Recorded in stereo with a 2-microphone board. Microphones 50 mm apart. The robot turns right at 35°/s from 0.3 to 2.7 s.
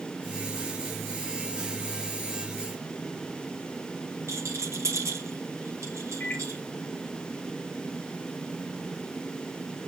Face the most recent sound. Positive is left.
turn(degrees=35)  # may be behind; listen again after turning